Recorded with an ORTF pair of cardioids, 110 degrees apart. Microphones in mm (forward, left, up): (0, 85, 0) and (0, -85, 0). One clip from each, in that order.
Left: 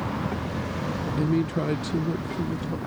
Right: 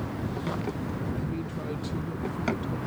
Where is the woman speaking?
70° left; by 2.8 s 30° left.